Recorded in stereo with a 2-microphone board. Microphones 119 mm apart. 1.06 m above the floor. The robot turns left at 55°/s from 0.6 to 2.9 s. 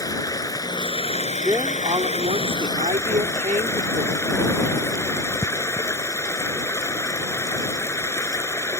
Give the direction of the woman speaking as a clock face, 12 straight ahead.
1 o'clock.